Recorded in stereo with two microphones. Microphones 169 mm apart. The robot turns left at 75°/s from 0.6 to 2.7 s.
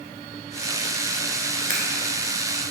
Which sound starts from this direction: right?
Scissors, at 1.7 s.